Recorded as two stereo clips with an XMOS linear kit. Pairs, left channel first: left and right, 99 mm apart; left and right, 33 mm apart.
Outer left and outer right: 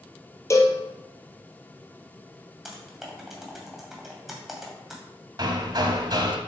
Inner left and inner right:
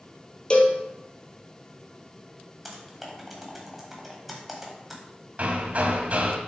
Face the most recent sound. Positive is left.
turn(degrees=-45)  # may be behind; listen again after turning